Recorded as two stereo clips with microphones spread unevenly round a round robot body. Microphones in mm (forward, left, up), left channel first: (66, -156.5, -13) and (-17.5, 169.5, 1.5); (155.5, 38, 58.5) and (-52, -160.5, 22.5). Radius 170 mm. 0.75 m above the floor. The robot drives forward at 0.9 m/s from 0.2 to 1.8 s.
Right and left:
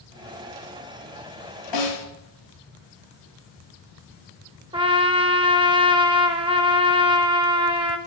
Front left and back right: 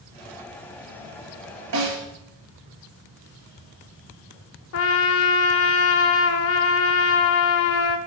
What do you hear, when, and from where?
1.7 s a snare drum: 105° right, 3 m
4.7 s a trumpet: 35° left, 0.6 m